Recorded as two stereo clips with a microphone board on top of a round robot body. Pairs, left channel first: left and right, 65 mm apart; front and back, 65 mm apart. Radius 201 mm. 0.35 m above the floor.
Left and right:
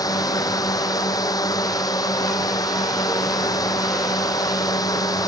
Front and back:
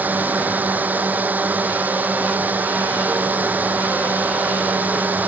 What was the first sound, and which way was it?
A drone, 115° left.